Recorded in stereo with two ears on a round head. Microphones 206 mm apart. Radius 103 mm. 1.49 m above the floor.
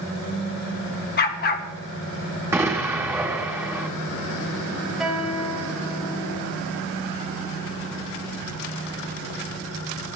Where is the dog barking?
40° left (ahead or behind), 1.3 m.